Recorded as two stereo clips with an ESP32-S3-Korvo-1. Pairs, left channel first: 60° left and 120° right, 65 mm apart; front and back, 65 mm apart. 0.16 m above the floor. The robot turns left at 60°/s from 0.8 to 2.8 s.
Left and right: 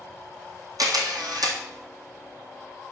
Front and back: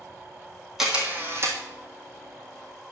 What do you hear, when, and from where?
0.8 s a camera shutter: 95° right, 1.6 m; by 1.6 s 140° right, 1.6 m